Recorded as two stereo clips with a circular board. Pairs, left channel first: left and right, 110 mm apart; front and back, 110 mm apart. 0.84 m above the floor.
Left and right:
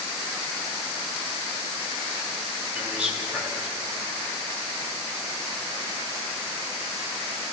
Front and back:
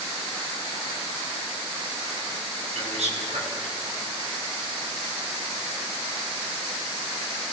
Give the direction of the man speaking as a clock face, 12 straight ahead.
6 o'clock.